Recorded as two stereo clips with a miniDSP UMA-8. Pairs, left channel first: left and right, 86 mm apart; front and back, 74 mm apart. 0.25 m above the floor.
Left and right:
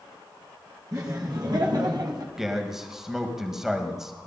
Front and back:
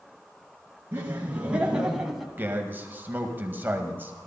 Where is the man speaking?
170° right, 1.6 m.